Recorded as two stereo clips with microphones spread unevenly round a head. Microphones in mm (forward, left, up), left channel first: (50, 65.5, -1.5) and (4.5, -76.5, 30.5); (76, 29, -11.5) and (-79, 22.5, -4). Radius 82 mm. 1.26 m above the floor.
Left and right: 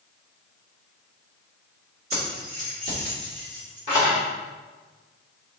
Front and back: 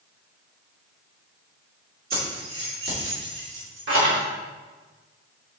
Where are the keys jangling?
140° right, 2.5 m; by 4.2 s 175° right, 3 m.